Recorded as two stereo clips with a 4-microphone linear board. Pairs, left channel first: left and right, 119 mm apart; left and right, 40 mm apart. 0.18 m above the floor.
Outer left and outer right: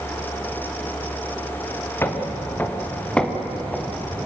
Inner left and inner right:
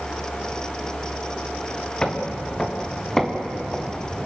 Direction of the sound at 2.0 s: 20° left (ahead or behind).